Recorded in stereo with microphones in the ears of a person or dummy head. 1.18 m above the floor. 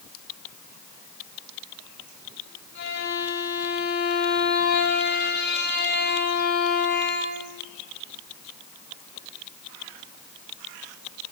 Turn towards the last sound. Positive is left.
turn(degrees=55)  # may be behind; listen again after turning